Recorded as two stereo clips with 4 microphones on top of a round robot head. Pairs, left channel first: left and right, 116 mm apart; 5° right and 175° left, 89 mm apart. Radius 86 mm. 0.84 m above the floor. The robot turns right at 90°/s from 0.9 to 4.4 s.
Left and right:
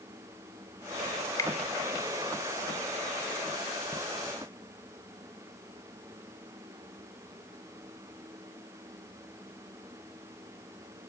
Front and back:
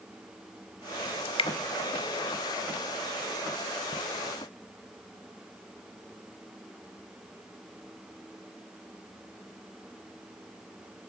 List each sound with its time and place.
1.2 s dripping: 5° left, 1.0 m; by 1.5 s 30° left, 1.0 m